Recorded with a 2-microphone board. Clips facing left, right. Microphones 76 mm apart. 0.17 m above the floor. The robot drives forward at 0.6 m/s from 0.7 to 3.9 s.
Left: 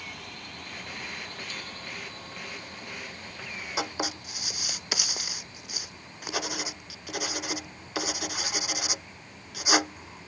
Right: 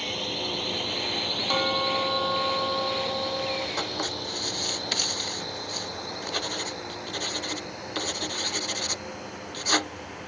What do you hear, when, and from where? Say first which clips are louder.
0.0 s a drone: right 10 dB; 70° right (ahead or behind); by 10.3 s 85° right
1.5 s a bell: right 15 dB; 65° right (ahead or behind); by 3.7 s 75° right (ahead or behind)
3.8 s writing: right 1 dB; 10° left (ahead or behind)